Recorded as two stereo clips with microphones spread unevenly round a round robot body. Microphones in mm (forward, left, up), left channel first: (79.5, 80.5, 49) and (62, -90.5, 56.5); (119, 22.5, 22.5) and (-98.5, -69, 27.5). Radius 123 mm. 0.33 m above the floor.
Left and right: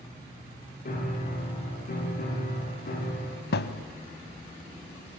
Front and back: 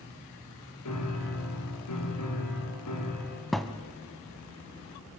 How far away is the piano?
About 7.5 m.